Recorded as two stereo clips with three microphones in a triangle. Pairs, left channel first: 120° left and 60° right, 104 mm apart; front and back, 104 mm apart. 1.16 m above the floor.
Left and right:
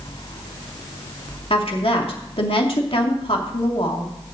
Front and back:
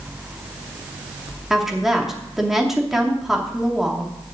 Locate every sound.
1.5 s a woman speaking: 95° left, 2.5 m